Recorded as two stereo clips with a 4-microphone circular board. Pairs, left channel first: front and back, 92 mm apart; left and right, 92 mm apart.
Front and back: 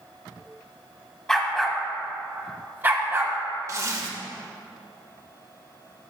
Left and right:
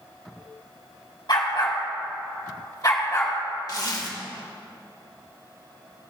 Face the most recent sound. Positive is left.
turn(degrees=130)